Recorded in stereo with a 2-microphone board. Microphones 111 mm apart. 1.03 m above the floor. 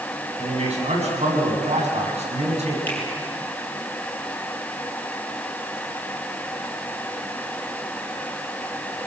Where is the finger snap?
15° left (ahead or behind), 8.5 m.